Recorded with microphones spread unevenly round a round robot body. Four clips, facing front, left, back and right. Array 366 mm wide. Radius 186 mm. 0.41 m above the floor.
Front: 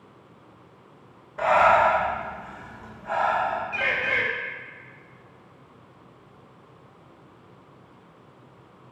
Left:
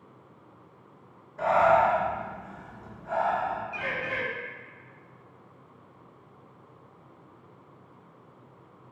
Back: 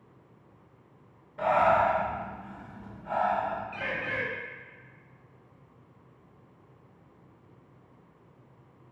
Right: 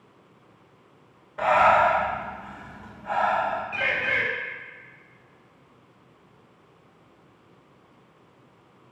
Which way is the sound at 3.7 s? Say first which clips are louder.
Right 5 dB, front 7 dB; 35° right.